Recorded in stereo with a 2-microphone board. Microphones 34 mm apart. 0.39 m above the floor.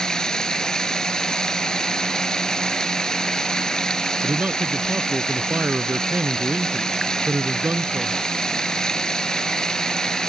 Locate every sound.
0.0 s running water: 20° left (ahead or behind)
4.2 s a man speaking: 55° right (ahead or behind)